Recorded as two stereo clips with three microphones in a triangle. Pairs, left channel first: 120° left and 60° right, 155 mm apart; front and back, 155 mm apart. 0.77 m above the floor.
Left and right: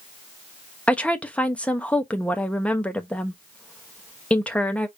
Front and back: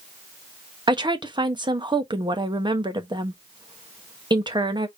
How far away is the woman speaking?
About 0.9 m.